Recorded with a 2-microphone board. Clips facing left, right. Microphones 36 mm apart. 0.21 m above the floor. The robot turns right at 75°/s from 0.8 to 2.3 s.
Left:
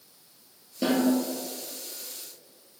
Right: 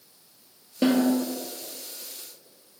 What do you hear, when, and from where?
0.8 s a snare drum: 30° right (ahead or behind), 1.8 m; by 1.1 s 10° right (ahead or behind), 1.8 m